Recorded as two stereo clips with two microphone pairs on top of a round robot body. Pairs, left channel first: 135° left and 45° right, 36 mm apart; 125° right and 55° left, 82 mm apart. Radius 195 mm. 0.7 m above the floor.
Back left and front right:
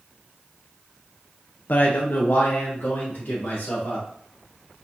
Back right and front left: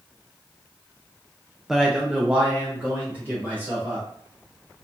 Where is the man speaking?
140° left, 0.6 m; by 4.1 s 125° left, 1.8 m.